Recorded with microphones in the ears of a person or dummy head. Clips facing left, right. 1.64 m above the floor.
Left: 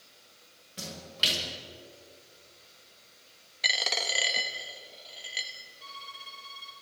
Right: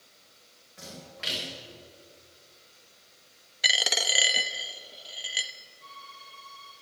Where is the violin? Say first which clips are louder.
Left 1 dB; 45° left (ahead or behind), 6.5 m.